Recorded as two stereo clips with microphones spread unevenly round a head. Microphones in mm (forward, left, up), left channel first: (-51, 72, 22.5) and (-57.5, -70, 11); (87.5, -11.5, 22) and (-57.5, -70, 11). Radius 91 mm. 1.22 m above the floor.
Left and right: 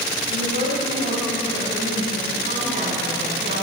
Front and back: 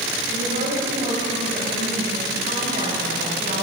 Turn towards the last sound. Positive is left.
turn(degrees=-120)